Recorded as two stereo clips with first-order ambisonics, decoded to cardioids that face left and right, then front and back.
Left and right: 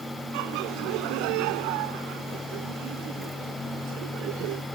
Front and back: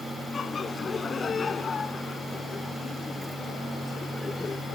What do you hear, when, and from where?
0.3 s laughter: 70° right; by 4.6 s 75° right